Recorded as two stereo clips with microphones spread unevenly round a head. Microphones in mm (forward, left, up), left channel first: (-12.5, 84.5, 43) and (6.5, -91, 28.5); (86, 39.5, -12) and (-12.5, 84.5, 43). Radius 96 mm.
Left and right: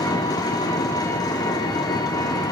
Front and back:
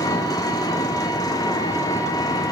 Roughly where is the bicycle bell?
No bicycle bell in this recording.